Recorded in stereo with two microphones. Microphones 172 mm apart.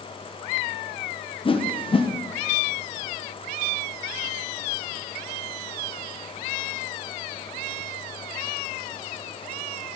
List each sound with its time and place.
1.4 s a whoosh: 30° left (ahead or behind), 1.1 m